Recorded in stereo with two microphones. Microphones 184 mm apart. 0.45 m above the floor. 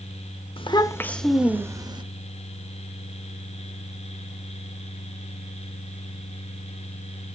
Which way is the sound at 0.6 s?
30° left (ahead or behind).